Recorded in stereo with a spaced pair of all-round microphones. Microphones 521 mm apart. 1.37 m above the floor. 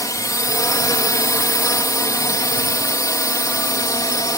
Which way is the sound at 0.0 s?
5° left (ahead or behind).